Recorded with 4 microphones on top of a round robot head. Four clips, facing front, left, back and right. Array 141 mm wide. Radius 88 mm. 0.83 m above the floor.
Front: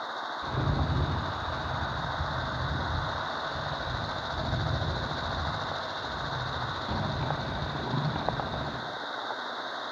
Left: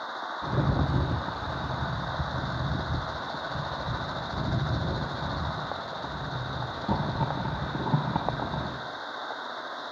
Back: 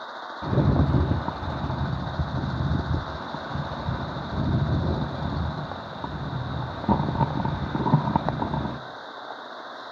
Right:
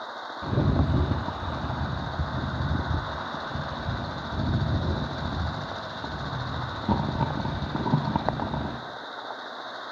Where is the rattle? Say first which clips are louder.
Right 3 dB, back 10 dB; 165° right, 0.8 m.